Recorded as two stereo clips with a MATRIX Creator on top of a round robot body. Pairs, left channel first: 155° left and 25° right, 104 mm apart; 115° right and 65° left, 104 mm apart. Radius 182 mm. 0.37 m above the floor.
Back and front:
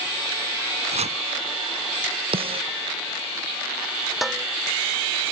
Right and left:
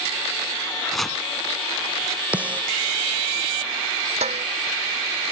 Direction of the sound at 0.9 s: 25° right.